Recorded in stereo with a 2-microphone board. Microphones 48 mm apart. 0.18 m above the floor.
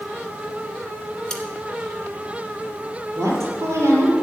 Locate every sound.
1.3 s cutlery clinking: 15° left (ahead or behind), 1.4 m
3.1 s a woman speaking: 70° right (ahead or behind), 4.5 m